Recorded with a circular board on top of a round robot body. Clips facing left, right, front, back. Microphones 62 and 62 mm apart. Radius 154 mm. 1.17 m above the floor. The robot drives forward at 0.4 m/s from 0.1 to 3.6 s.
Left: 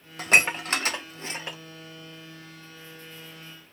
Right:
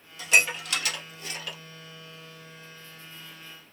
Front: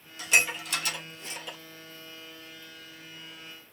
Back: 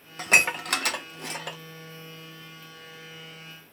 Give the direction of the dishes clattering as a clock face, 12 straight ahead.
8 o'clock.